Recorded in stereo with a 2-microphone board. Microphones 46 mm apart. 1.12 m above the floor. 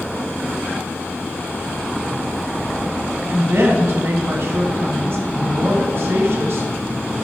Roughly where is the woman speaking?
Right.